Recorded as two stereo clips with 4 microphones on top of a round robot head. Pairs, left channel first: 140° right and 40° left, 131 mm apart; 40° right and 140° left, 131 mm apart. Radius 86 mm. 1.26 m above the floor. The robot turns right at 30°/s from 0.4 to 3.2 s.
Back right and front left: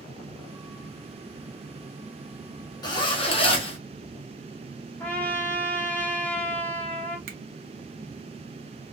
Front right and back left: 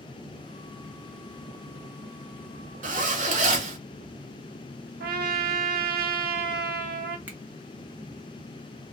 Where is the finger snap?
65° left, 0.7 m.